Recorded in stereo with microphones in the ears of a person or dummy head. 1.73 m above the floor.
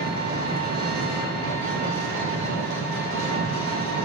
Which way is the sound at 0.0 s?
65° right (ahead or behind).